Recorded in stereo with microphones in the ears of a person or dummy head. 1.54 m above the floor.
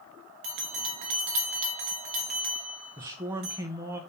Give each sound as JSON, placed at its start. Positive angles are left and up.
{"t": 0.4, "sound": "a bell", "side_deg": -35, "distance_m": 1.0}
{"t": 3.0, "sound": "a man speaking", "side_deg": -15, "distance_m": 0.6}